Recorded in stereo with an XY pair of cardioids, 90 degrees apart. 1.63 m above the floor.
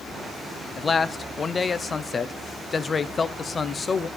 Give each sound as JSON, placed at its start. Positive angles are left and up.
{"t": 0.8, "sound": "a man speaking", "azimuth_deg": 35, "distance_m": 0.7}